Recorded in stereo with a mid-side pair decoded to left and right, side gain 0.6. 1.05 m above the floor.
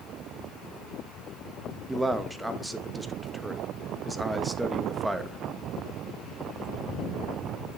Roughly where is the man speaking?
Ahead.